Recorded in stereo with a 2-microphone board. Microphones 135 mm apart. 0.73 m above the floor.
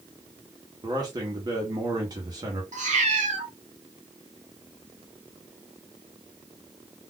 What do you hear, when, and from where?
0.8 s a man speaking: 30° right (ahead or behind), 0.9 m
2.7 s a cat meowing: 65° right (ahead or behind), 1.2 m